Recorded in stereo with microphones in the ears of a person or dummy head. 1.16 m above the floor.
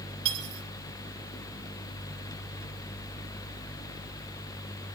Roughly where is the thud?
No thud in this recording.